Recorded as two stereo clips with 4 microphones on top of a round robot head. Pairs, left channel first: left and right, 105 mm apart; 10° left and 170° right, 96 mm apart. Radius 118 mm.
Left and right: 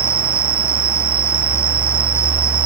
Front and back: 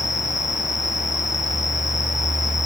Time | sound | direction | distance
0.0 | an insect | 50° right | ?